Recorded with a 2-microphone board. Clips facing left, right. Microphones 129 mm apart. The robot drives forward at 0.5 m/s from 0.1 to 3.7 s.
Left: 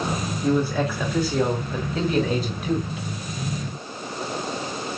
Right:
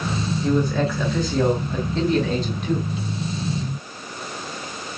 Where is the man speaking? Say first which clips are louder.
Even; 5° left (ahead or behind), 3 m.